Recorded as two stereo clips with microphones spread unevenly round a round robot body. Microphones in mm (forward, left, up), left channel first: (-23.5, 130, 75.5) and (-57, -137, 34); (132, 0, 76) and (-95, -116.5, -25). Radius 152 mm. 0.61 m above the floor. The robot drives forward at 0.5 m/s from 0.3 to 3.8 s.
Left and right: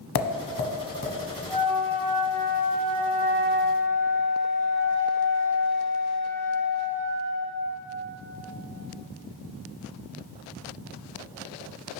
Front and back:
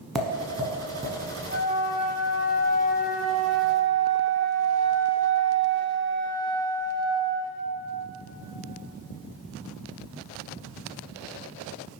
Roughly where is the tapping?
Left.